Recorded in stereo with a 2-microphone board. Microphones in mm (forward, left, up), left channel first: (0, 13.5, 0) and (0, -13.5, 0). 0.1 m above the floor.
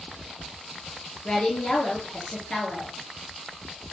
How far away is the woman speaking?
About 1.5 m.